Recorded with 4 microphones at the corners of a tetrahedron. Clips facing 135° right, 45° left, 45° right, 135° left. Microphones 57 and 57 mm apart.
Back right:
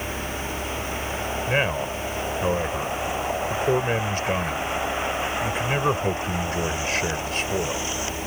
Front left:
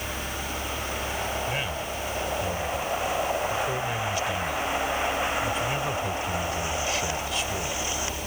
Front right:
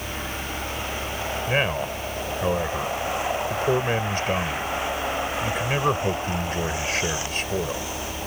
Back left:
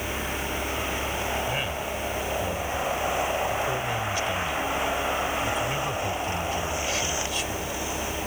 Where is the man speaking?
90° right.